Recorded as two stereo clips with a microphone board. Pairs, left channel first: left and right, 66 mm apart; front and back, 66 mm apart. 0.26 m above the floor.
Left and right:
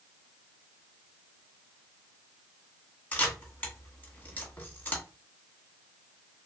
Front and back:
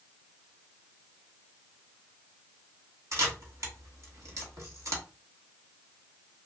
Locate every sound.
3.1 s a camera shutter: 150° left, 1.1 m